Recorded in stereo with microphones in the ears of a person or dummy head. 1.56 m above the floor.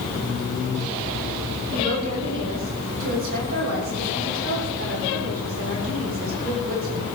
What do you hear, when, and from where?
1.7 s a woman speaking: 75° right (ahead or behind), 9 m